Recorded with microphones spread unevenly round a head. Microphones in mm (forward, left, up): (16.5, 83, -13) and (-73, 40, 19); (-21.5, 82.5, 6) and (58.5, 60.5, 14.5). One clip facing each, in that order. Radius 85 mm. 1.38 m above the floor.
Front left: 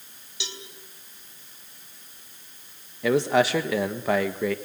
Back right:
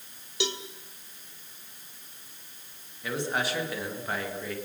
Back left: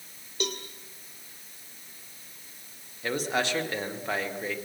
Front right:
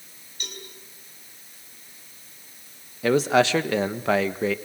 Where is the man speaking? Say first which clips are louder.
Front left 10 dB, front right 9 dB; 15° right, 1.5 m.